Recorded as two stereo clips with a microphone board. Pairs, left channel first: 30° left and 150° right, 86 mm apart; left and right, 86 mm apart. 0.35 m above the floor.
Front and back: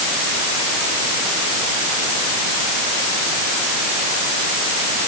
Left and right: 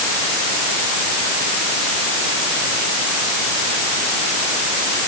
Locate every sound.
Only background noise.